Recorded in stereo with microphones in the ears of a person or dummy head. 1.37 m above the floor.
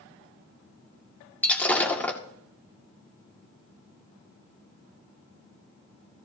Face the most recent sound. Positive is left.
turn(degrees=10)  # may be behind; listen again after turning